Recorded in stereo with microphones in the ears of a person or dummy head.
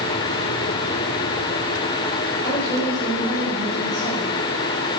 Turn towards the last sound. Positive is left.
turn(degrees=20)  # may be behind; listen again after turning